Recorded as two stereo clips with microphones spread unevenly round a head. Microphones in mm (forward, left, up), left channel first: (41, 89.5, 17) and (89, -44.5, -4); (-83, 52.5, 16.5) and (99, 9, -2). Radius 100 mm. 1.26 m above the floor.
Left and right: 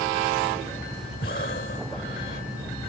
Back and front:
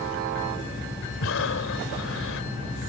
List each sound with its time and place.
1.2 s breathing: 155° left